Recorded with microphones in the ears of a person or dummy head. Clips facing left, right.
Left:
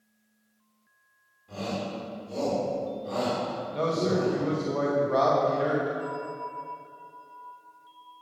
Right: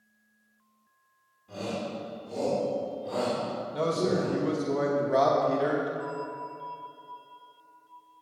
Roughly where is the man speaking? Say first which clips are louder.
Left 1 dB; centre.